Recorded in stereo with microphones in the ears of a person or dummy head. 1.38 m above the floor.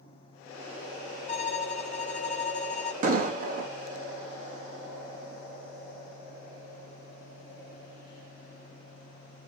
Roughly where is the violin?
Left.